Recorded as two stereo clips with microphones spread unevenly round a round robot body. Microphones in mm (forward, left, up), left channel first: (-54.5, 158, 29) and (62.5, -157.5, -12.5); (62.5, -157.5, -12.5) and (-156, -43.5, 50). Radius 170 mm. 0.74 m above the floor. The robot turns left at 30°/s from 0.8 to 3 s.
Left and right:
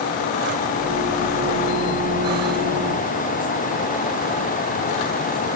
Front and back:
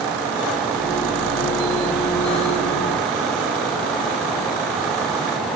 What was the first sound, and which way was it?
Only background noise.